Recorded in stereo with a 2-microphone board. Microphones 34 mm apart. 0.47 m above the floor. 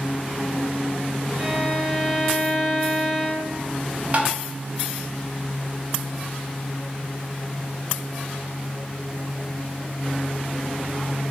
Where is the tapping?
40° right (ahead or behind), 0.5 m.